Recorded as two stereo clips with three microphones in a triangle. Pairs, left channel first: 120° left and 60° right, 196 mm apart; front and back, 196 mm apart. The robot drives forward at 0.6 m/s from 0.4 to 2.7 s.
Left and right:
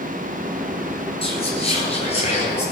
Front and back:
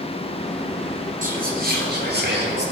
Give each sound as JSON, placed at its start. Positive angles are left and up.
{"t": 1.2, "sound": "whispering", "azimuth_deg": 165, "distance_m": 1.5}